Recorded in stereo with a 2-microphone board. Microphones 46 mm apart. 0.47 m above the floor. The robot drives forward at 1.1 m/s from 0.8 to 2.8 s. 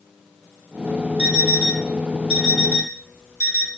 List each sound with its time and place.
1.2 s an alarm clock: 40° right (ahead or behind), 1.5 m; by 3.7 s 20° right (ahead or behind), 3 m